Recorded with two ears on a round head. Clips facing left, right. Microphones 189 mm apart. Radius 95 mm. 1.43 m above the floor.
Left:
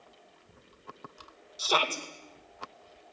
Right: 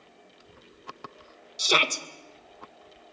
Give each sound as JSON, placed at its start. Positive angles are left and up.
{"t": 1.6, "sound": "a shout", "side_deg": -25, "distance_m": 2.0}